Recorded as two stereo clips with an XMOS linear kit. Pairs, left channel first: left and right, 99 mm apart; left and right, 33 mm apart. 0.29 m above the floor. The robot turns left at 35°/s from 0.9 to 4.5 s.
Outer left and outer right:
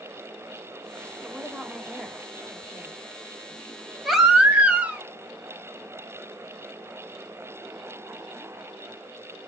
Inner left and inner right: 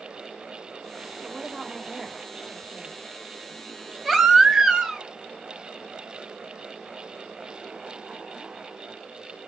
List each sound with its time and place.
1.2 s a woman speaking: 5° left (ahead or behind), 0.9 m; by 3.0 s 15° right (ahead or behind), 0.9 m
4.0 s a baby crying: centre (ahead or behind), 1.1 m; by 5.0 s 15° right (ahead or behind), 1.1 m